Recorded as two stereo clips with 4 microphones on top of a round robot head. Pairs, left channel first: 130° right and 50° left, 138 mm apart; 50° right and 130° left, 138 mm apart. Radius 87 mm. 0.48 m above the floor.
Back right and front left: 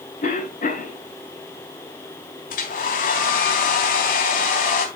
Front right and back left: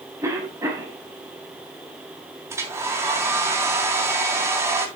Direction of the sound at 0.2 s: 160° right.